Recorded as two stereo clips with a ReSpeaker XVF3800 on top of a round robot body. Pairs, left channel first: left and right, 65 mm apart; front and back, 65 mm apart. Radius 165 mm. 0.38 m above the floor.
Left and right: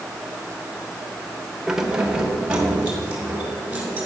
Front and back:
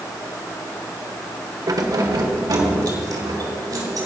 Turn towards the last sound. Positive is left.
turn(degrees=-160)